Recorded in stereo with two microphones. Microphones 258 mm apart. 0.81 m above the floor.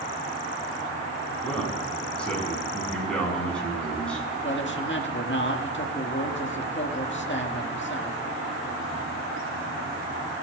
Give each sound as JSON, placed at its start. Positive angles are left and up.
{"t": 1.4, "sound": "a man speaking", "side_deg": 5, "distance_m": 6.0}
{"t": 4.4, "sound": "a man speaking", "side_deg": 50, "distance_m": 1.8}